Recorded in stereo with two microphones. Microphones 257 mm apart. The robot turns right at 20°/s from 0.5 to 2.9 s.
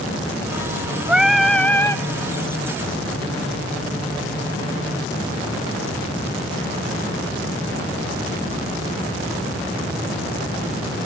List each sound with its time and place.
1.1 s singing: 5° right (ahead or behind), 1.1 m; by 2.0 s 10° left (ahead or behind), 1.1 m